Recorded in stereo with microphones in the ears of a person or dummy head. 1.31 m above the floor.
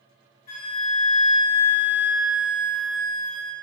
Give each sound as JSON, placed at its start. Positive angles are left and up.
{"t": 0.5, "sound": "a flute", "side_deg": 25, "distance_m": 0.9}